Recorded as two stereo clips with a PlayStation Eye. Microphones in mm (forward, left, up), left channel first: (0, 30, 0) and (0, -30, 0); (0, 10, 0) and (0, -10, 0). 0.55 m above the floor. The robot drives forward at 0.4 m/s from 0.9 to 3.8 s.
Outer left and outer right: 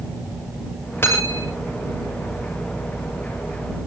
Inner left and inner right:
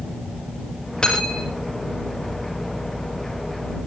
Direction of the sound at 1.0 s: 40° left (ahead or behind).